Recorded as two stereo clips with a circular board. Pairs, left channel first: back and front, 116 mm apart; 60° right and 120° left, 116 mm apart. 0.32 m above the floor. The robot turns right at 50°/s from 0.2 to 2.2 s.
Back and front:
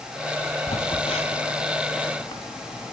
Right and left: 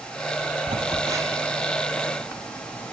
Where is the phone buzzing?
155° left, 2.5 m; by 2.9 s 130° right, 2.5 m.